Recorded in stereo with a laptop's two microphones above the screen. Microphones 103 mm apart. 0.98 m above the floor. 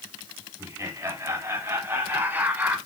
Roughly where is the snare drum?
No snare drum in this recording.